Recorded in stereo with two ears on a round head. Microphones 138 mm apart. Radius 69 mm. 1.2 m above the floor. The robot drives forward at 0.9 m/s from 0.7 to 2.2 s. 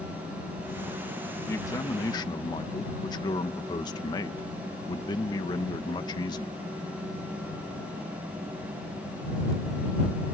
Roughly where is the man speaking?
Centre.